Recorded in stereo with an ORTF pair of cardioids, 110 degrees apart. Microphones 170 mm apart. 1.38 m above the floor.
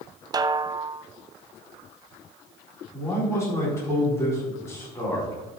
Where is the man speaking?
15° left, 4.5 m.